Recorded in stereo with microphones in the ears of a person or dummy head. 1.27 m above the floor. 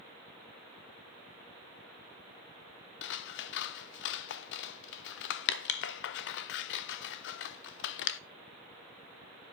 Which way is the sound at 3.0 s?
65° left (ahead or behind).